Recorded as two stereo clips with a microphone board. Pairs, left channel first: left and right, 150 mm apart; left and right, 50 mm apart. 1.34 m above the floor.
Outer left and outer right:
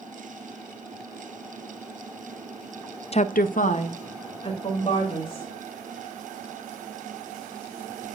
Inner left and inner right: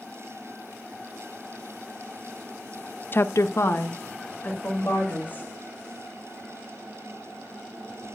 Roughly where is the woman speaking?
Left.